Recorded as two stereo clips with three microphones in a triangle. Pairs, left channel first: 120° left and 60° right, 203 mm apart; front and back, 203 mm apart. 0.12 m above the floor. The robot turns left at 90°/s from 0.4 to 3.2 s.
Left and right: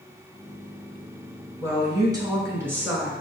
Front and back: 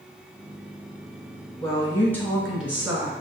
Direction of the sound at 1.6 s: 15° right.